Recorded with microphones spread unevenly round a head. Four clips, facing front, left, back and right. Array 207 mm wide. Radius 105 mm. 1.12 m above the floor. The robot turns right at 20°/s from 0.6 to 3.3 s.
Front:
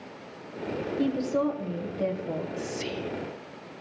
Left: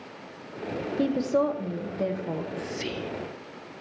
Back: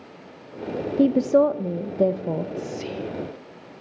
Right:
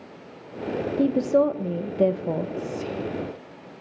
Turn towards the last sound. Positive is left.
turn(degrees=80)